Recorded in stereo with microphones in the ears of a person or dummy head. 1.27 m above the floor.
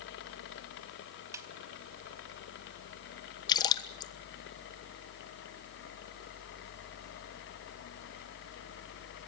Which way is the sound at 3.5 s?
20° left (ahead or behind).